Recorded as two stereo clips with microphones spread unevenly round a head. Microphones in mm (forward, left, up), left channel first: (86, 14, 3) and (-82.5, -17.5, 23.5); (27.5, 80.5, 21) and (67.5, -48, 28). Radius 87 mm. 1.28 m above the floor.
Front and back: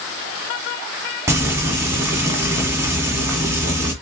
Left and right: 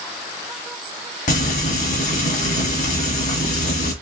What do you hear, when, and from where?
1.3 s frying: 125° left, 1.6 m